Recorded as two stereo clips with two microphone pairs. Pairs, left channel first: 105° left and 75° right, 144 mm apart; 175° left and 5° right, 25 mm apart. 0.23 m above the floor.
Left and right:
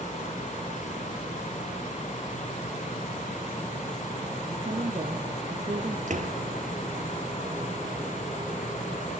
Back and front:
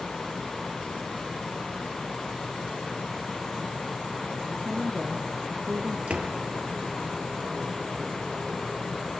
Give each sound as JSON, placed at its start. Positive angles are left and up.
{"t": 4.5, "sound": "a woman speaking", "azimuth_deg": -35, "distance_m": 3.5}
{"t": 6.1, "sound": "a door slam", "azimuth_deg": -45, "distance_m": 3.5}